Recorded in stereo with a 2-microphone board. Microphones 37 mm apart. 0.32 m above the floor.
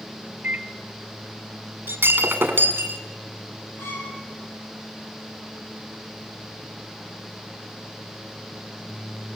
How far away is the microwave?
About 0.9 m.